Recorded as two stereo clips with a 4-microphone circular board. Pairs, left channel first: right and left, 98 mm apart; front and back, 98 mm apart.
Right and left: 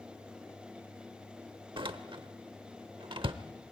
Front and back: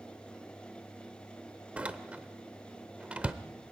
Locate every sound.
1.8 s a door slam: 105° left, 0.9 m